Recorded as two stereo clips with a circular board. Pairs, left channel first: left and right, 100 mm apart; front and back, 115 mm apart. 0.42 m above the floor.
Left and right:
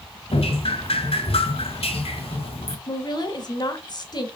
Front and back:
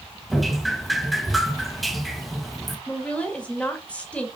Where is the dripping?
90° left, 1.1 m.